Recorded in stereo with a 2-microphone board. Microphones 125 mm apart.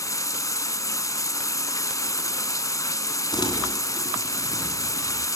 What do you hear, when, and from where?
0.0 s running water: 25° left (ahead or behind), 0.8 m
3.3 s crumpling: 35° left (ahead or behind), 2.5 m